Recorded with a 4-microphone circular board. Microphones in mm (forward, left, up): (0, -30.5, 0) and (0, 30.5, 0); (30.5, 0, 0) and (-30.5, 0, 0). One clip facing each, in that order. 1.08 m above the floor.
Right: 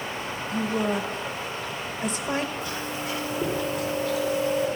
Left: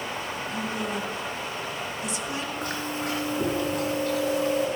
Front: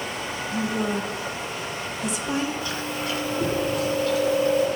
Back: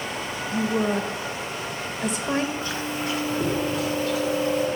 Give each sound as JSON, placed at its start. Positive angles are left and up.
{"t": 0.5, "sound": "a woman speaking", "azimuth_deg": -140, "distance_m": 1.5}
{"t": 2.6, "sound": "chewing", "azimuth_deg": 120, "distance_m": 4.0}